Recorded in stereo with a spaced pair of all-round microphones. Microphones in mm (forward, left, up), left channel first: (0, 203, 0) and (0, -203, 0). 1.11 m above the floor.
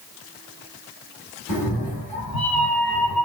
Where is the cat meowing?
60° left (ahead or behind), 1.8 m.